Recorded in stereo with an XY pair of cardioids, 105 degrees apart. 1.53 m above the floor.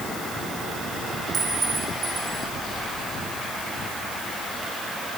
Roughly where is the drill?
No drill in this recording.